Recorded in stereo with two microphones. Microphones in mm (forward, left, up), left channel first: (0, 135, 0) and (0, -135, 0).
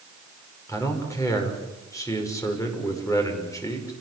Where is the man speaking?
10° left (ahead or behind), 6 m.